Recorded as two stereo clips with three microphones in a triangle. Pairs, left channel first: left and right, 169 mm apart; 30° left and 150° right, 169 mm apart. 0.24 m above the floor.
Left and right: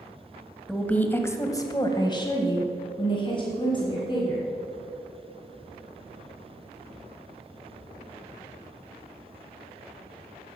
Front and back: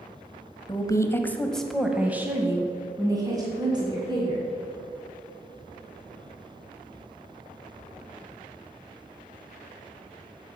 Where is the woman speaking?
10° left, 1.0 m; by 4.5 s 150° left, 2.5 m.